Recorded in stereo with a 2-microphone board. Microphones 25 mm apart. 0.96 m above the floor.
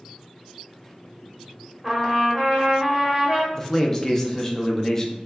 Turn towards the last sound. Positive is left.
turn(degrees=15)  # may be behind; listen again after turning